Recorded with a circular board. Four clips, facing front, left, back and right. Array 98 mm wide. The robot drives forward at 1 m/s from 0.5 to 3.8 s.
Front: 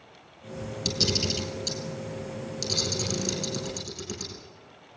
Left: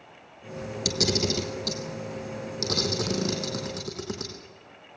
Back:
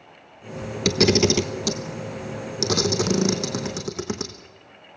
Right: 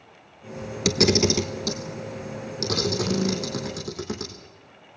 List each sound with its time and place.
0.8 s a camera shutter: 145° right, 1.0 m; by 4.3 s 170° right, 4 m